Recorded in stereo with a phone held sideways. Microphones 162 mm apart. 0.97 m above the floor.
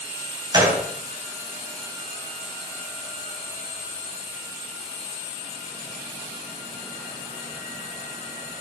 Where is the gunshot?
30° right (ahead or behind), 2.5 m.